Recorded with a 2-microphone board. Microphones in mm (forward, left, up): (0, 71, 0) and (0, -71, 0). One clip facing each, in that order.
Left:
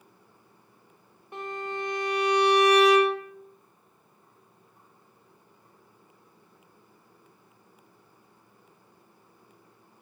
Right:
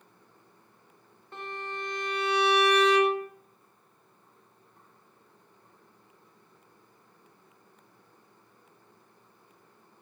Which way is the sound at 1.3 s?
15° left (ahead or behind).